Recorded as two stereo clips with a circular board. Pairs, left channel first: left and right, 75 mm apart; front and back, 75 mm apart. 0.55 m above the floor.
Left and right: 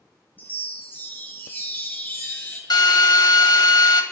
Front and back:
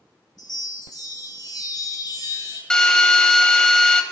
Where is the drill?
80° left, 1.6 m.